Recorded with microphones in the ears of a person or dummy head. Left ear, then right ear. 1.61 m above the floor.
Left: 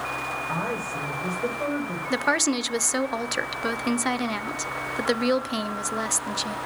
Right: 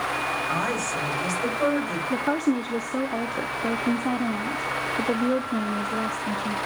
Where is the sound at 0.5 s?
85° right, 8 m.